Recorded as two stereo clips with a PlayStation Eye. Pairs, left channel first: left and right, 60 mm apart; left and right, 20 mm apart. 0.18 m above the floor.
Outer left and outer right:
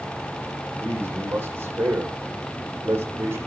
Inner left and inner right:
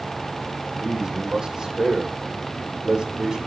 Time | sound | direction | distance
0.7 | a man speaking | 45° right (ahead or behind) | 7 m